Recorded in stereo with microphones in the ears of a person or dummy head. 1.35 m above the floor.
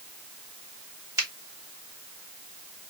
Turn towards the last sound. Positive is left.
turn(degrees=-20)  # may be behind; listen again after turning